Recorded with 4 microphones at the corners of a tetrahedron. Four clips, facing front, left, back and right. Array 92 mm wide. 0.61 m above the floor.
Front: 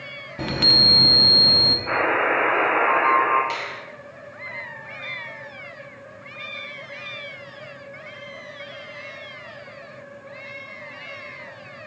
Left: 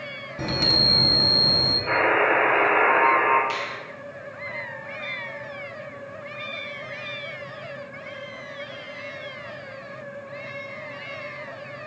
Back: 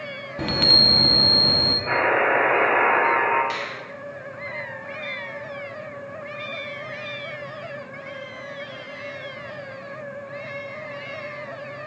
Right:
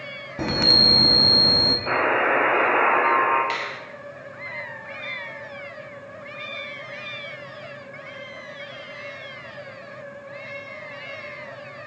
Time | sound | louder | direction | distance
0.4 | a chime | right 3 dB, back 1 dB | 95° right | 0.7 m
1.9 | a buzzer | left 1 dB, back 1 dB | 90° right | 4 m
3.5 | a finger snap | right 1 dB, even | 100° right | 2 m